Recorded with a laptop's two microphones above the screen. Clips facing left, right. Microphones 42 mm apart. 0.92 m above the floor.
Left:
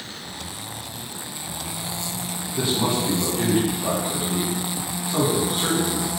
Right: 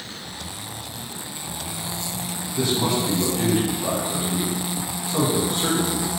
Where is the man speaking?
20° left (ahead or behind), 1.3 m.